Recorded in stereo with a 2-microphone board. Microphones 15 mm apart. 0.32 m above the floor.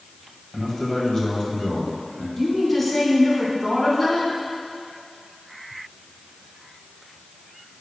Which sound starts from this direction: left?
A man speaking, at 0.5 s.